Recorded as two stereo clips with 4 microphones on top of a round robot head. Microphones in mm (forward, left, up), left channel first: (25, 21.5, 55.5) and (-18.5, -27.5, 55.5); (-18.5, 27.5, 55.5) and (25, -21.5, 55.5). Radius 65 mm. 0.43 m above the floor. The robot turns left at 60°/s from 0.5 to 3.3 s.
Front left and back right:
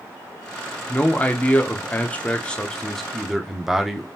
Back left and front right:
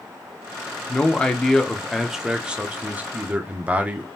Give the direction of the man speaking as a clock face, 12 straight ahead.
9 o'clock.